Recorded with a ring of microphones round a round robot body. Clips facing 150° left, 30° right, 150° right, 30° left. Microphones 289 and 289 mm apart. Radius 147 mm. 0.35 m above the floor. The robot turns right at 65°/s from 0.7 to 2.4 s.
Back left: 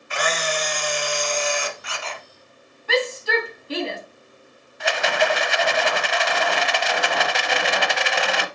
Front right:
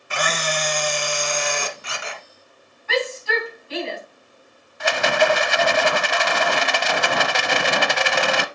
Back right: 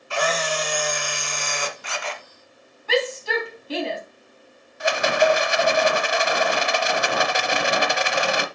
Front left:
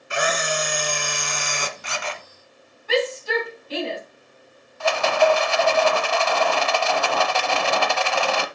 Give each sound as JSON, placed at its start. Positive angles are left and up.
{"t": 0.1, "sound": "a camera shutter", "azimuth_deg": -40, "distance_m": 1.3}
{"t": 2.9, "sound": "a shout", "azimuth_deg": -160, "distance_m": 3.5}
{"t": 4.8, "sound": "a rattle", "azimuth_deg": -75, "distance_m": 0.7}